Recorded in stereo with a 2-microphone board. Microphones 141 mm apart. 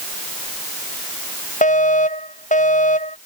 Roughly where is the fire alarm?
Left.